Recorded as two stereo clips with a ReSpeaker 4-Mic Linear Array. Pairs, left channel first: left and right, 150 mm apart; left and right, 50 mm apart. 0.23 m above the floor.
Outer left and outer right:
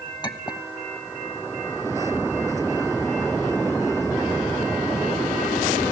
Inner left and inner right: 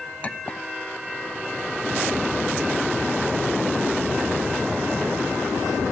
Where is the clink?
30° left (ahead or behind), 1.1 m.